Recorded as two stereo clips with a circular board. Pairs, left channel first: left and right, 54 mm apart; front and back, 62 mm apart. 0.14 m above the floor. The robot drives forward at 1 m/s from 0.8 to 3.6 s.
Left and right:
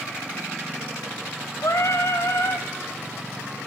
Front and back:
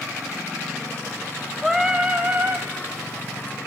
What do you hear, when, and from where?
1.6 s singing: 90° left, 1.4 m; by 2.7 s 130° left, 1.8 m